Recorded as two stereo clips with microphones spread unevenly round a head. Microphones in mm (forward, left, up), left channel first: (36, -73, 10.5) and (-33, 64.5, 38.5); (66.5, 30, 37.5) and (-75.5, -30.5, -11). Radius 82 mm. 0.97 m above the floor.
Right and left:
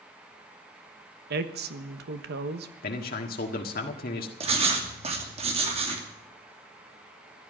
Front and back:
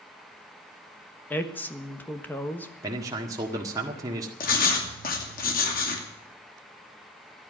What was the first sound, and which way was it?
A woman speaking, 110° left.